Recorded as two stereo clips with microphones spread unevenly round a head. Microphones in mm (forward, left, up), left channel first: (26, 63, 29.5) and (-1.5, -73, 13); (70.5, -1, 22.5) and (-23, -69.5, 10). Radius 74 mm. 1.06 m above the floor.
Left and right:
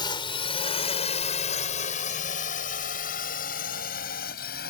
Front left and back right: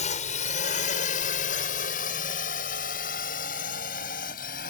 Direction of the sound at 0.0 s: 20° left.